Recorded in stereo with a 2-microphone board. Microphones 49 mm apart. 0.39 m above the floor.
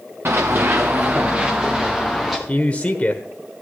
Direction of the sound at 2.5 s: 30° left (ahead or behind).